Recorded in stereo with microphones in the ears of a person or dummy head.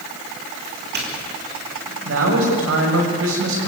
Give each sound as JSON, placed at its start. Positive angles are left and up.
{"t": 0.6, "sound": "a doorbell", "side_deg": -50, "distance_m": 4.0}
{"t": 2.0, "sound": "a man speaking", "side_deg": -70, "distance_m": 6.5}